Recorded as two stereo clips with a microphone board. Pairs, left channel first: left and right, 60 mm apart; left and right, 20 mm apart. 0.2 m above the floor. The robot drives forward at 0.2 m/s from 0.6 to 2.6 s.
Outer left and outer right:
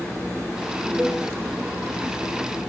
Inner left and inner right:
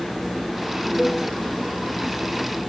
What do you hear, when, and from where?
1.0 s a cowbell: 35° right (ahead or behind), 7 m